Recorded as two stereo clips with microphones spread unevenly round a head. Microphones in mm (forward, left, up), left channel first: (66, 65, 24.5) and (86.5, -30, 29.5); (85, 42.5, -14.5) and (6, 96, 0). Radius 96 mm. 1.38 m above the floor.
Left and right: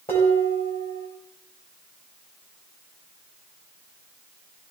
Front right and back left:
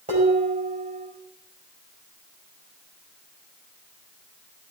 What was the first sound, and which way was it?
Dishes clattering, 165° left.